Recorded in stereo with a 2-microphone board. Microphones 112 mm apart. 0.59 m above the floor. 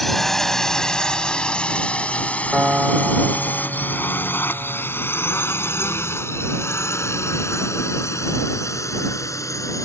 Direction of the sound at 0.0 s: Centre (ahead or behind).